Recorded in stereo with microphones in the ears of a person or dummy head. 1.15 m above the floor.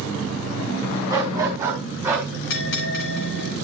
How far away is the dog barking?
About 4 m.